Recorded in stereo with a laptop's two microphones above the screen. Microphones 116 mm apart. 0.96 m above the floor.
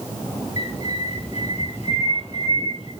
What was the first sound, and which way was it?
A bird, 65° left (ahead or behind).